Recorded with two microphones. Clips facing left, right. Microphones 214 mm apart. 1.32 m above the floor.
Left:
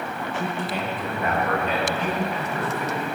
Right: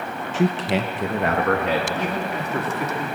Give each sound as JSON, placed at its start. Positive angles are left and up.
{"t": 0.3, "sound": "a man speaking", "side_deg": -75, "distance_m": 0.8}